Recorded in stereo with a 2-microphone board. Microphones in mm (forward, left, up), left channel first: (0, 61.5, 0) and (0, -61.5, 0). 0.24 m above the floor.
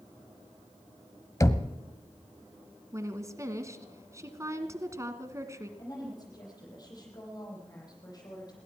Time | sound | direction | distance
1.4 | knocking | 25° left (ahead or behind) | 1.0 m
2.9 | a woman speaking | 25° right (ahead or behind) | 2 m
5.8 | a woman speaking | 30° left (ahead or behind) | 8.5 m